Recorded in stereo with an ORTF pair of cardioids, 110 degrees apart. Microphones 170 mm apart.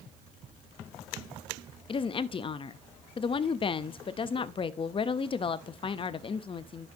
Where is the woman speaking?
30° left, 0.7 m.